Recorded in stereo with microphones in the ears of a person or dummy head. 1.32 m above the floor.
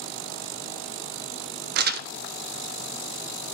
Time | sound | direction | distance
1.8 | crumpling | 55° right (ahead or behind) | 0.5 m